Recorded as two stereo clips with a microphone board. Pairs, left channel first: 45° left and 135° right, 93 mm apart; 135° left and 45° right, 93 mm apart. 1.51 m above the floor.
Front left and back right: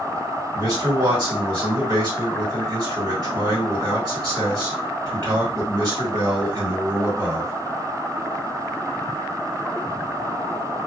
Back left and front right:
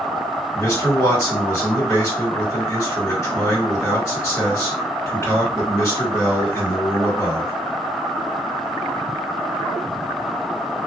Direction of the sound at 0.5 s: 165° right.